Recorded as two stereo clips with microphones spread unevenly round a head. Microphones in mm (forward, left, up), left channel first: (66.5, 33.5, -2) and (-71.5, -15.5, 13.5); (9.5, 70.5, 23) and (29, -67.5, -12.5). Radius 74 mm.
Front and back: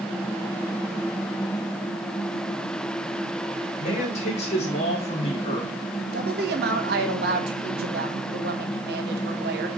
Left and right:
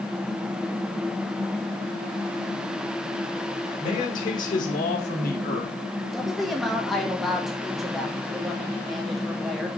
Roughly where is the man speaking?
Ahead left.